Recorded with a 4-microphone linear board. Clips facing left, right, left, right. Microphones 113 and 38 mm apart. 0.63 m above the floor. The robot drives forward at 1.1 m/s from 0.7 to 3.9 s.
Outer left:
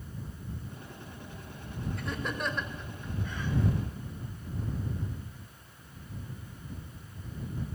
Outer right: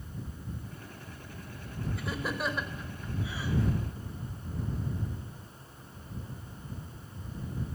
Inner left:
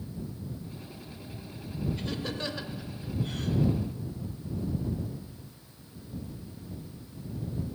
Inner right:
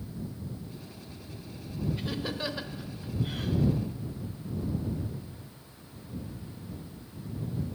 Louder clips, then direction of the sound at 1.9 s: Outer right 1 dB, even; 5° right (ahead or behind).